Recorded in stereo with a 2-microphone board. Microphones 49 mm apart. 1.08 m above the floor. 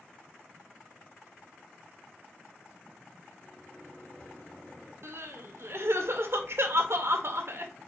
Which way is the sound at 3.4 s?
30° left (ahead or behind).